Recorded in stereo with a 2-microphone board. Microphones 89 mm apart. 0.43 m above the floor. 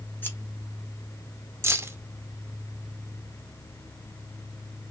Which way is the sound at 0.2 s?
25° left (ahead or behind).